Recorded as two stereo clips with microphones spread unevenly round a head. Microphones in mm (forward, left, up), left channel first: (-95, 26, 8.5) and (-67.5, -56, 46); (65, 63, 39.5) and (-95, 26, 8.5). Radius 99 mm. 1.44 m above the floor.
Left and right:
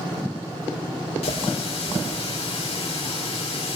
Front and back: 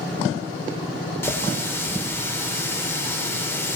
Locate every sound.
1.2 s a running tap: 85° left, 3.5 m